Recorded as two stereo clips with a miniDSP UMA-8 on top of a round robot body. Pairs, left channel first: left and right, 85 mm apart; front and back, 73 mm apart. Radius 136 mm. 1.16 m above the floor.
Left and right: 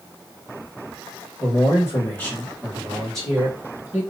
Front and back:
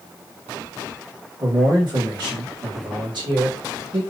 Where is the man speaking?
140° left, 1.4 m; by 4.0 s 170° right, 1.7 m.